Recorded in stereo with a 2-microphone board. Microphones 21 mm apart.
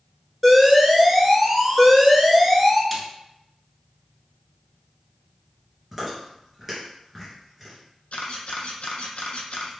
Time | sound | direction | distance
0.4 | an alarm | 10° right (ahead or behind) | 1.0 m
2.9 | a snare drum | centre (ahead or behind) | 0.8 m
5.9 | chewing | 10° right (ahead or behind) | 1.7 m
8.1 | a camera shutter | 70° left (ahead or behind) | 0.8 m